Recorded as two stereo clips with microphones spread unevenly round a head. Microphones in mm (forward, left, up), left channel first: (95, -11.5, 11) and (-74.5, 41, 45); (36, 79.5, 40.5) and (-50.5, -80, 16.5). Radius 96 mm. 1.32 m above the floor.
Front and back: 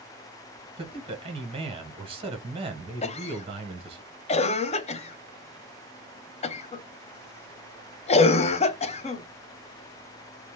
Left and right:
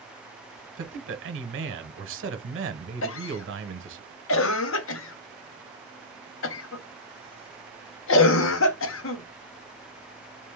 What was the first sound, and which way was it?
A man speaking, 135° right.